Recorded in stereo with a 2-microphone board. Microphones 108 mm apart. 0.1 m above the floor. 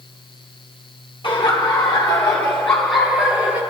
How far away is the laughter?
About 2 m.